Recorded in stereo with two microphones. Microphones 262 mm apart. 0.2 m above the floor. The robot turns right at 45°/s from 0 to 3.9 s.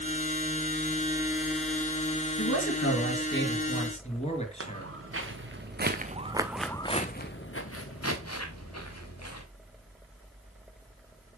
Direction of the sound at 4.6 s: 60° right (ahead or behind).